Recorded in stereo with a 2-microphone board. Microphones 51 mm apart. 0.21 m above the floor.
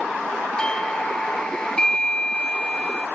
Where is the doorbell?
15° left (ahead or behind).